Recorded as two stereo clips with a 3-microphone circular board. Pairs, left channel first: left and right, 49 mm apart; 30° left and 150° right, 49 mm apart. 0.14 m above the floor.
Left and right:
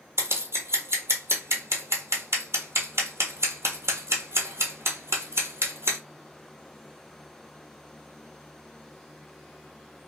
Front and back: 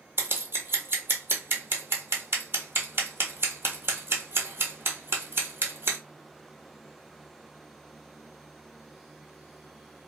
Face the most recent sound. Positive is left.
turn(degrees=-115)